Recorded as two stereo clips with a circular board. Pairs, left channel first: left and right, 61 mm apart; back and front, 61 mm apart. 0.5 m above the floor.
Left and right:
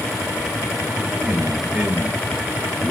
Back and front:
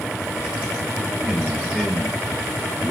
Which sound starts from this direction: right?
A man speaking, at 1.2 s.